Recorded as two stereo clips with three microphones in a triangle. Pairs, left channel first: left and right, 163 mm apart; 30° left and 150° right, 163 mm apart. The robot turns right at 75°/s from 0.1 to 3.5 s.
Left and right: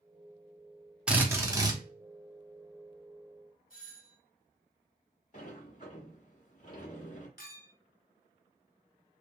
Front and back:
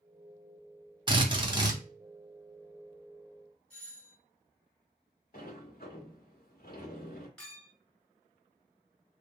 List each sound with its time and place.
1.1 s a drill: 165° right, 1.0 m; by 1.8 s 110° right, 1.0 m
3.7 s a doorbell: 110° left, 2.5 m
5.3 s a sliding door: 55° left, 1.5 m
7.4 s a clink: 115° left, 2.5 m